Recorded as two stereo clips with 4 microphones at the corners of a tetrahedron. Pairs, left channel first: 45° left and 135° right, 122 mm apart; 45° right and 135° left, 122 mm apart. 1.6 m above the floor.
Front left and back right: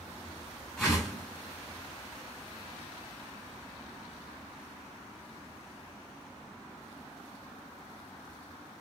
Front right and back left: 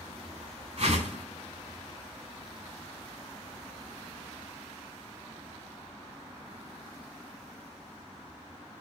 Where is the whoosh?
130° left, 2.5 m.